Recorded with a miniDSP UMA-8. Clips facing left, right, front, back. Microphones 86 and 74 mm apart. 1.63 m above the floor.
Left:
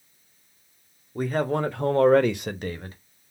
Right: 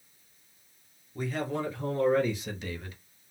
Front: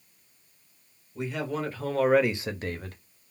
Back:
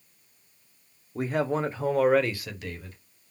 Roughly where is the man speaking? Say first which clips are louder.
Left 7 dB, back 5 dB; behind left.